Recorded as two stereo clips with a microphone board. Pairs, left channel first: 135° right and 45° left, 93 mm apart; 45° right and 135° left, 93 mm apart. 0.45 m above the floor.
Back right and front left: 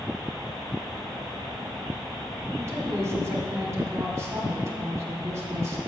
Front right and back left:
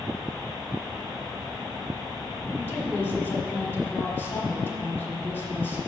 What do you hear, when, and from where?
2.6 s a woman speaking: 10° left, 1.3 m